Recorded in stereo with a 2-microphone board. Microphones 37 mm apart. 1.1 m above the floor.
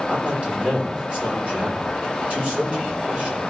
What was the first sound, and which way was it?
A man speaking, 35° right (ahead or behind).